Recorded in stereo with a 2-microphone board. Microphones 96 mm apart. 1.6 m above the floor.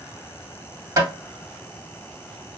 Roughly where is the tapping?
Right.